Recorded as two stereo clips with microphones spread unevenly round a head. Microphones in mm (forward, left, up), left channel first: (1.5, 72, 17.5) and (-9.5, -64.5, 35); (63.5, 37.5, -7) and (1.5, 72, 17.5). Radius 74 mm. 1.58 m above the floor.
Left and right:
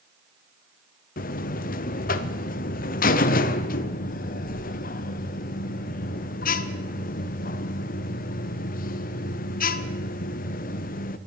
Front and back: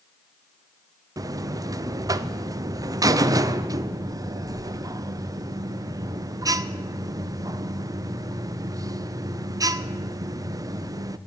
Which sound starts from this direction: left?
A buzzer, at 1.2 s.